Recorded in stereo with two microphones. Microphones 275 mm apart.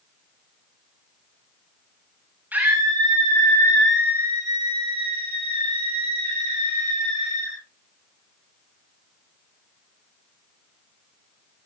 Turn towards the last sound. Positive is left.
turn(degrees=-65)  # may be behind; listen again after turning